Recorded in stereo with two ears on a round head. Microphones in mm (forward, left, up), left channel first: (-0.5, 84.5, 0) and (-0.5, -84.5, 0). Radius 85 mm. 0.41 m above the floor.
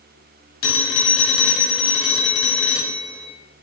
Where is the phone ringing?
75° left (ahead or behind), 2 m.